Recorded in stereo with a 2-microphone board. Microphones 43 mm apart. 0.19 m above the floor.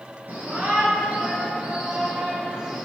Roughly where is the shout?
Right.